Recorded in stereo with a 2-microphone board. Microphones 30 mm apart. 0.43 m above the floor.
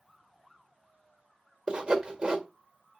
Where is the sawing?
25° right (ahead or behind), 1.8 m.